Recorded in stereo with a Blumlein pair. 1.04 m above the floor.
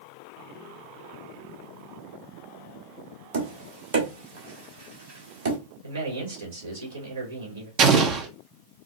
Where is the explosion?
35° right, 0.8 m.